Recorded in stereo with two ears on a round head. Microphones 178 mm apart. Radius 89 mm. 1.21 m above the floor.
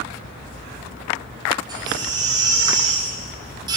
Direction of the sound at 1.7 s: 20° right (ahead or behind).